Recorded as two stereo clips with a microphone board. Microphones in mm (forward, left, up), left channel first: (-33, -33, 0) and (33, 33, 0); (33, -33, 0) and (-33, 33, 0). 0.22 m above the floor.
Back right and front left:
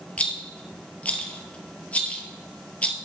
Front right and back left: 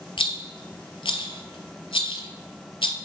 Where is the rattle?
60° right, 0.7 m.